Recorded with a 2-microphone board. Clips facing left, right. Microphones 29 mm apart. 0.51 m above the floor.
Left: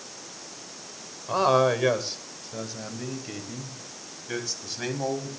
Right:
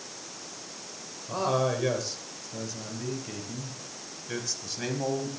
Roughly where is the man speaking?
Left.